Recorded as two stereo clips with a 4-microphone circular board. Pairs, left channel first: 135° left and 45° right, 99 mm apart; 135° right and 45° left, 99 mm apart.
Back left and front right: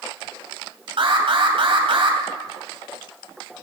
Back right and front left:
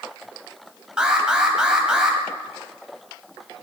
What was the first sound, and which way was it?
An alarm, 35° right.